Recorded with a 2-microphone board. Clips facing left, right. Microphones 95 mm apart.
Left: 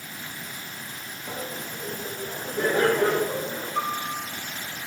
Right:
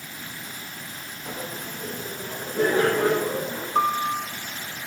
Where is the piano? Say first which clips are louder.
Right 7 dB; 45° right (ahead or behind), 0.8 m.